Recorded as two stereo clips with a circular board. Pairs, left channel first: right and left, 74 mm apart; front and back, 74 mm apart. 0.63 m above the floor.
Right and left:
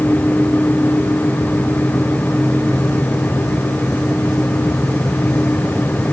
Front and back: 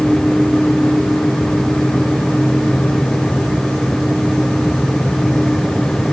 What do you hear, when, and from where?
Only background noise.